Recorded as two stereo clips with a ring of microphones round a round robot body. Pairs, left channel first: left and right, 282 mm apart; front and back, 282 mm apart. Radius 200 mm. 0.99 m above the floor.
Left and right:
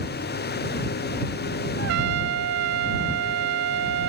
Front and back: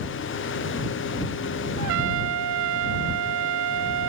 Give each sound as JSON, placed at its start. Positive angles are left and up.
{"t": 1.8, "sound": "a trumpet", "azimuth_deg": -140}